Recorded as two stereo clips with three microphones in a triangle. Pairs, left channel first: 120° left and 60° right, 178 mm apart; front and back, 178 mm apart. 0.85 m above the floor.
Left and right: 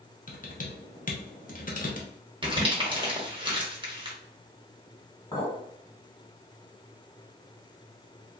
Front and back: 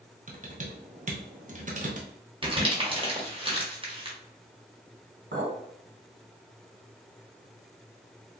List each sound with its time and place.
0.3 s typing on a keyboard: 145° left, 0.6 m
2.4 s crumpling: 120° right, 0.9 m
5.3 s a clink: 175° right, 1.5 m